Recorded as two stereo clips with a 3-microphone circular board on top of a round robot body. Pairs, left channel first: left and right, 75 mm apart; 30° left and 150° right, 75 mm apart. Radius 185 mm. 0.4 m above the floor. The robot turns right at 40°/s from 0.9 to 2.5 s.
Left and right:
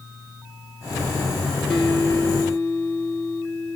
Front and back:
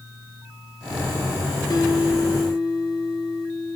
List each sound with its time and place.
1.7 s a guitar: 5° left, 2.5 m; by 3.8 s 40° left, 2.5 m